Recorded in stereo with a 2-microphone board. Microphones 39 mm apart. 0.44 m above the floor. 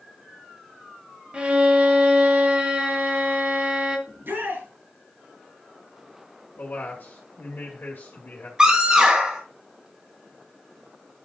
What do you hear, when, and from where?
1.3 s a violin: 30° right (ahead or behind), 1.5 m
4.1 s a shout: 70° right (ahead or behind), 5.5 m
6.5 s a man speaking: 50° left (ahead or behind), 2 m
8.6 s a scream: 20° right (ahead or behind), 1.7 m